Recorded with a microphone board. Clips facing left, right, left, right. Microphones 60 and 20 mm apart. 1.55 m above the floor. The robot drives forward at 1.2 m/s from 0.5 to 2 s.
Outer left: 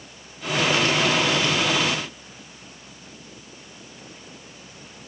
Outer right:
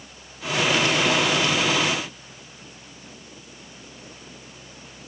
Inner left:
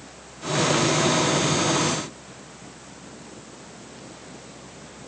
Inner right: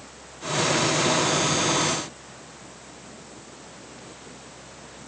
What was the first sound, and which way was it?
Only background noise.